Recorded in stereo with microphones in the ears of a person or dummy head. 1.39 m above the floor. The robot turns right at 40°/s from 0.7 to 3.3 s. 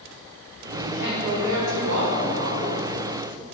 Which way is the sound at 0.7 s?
135° right.